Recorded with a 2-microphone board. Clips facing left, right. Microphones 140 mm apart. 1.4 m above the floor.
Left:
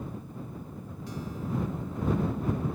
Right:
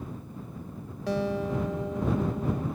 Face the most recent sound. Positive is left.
turn(degrees=-80)